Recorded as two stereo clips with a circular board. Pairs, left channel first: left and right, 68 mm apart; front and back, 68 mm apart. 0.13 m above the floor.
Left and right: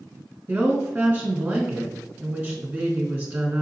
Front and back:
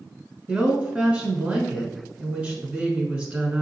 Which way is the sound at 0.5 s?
130° right.